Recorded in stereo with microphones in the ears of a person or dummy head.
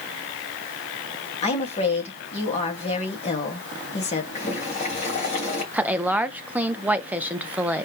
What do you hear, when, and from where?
1.4 s a woman speaking: 35° left (ahead or behind), 1.8 m
4.3 s boiling: 40° left (ahead or behind), 2.5 m
5.7 s a woman speaking: 5° right (ahead or behind), 0.6 m